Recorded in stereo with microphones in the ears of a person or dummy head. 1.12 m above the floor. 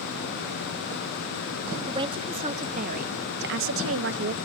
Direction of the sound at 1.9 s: 25° right (ahead or behind).